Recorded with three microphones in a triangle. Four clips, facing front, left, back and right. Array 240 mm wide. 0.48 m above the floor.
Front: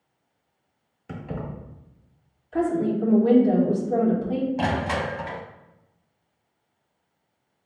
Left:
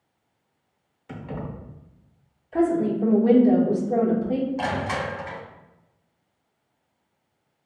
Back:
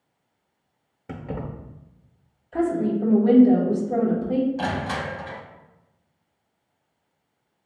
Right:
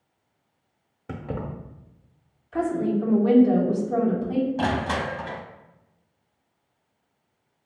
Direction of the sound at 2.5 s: 110° left.